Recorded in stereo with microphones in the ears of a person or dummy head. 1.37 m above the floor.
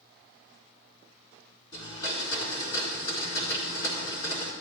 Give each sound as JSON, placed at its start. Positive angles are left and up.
{"t": 1.7, "sound": "a blender", "side_deg": 20, "distance_m": 4.0}